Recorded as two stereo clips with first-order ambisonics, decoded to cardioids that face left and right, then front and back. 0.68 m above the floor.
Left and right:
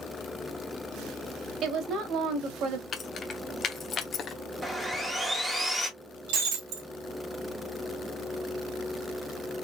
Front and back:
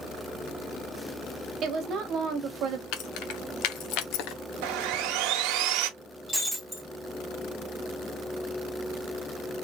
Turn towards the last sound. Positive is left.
turn(degrees=-80)